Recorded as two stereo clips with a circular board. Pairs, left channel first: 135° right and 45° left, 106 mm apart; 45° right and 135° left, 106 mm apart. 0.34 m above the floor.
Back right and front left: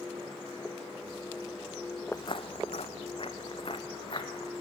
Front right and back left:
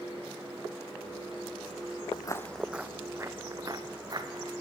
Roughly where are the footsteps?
Right.